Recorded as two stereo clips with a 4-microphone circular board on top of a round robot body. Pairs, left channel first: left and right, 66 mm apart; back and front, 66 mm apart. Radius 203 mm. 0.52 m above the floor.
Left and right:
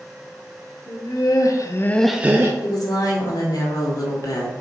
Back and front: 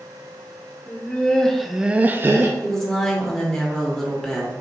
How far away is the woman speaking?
About 1.6 m.